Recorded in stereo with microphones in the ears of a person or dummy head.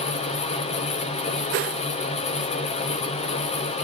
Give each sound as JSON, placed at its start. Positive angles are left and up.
{"t": 0.0, "sound": "a fan", "side_deg": 40, "distance_m": 1.1}
{"t": 1.5, "sound": "a whoosh", "side_deg": -40, "distance_m": 0.5}